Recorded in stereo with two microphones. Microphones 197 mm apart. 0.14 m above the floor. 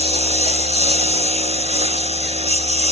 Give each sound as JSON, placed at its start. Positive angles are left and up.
{"t": 0.0, "sound": "a lawn mower", "side_deg": -35}